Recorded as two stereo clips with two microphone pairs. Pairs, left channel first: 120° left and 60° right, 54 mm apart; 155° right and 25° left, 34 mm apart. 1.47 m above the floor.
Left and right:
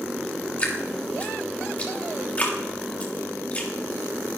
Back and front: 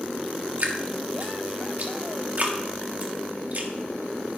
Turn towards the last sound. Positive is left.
turn(degrees=60)